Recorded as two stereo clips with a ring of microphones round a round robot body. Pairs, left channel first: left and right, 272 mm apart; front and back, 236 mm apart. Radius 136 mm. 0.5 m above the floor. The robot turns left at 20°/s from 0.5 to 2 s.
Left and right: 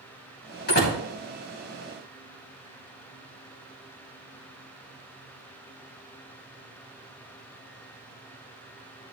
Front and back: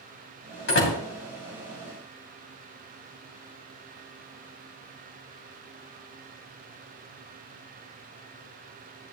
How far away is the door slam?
About 3 m.